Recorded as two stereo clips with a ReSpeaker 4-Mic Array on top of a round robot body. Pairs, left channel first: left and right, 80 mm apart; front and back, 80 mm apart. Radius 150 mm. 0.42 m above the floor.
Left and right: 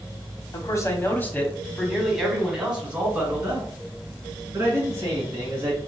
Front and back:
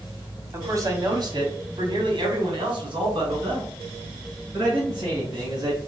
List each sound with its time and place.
0.5 s a man speaking: 125° left, 1.3 m; by 5.8 s 140° right, 4 m